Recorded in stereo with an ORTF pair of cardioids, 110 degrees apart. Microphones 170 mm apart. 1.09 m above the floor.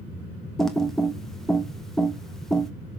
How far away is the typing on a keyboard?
About 1.2 m.